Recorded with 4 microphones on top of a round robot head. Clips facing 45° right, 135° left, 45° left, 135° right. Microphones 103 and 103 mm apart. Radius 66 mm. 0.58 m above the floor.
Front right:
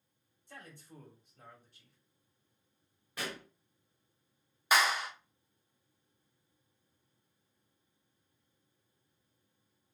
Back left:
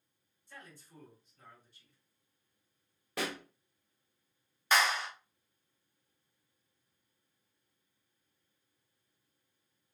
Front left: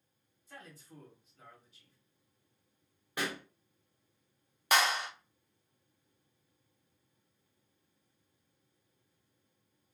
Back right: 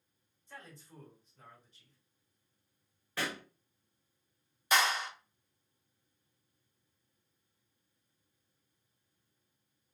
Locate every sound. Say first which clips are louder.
0.5 s a man speaking: front right 2 dB, even; 40° right, 1.7 m
3.2 s a pop: back left 4 dB, front left 1 dB; 120° left, 0.8 m
4.7 s a clap: even, front left 1 dB; 35° left, 1.1 m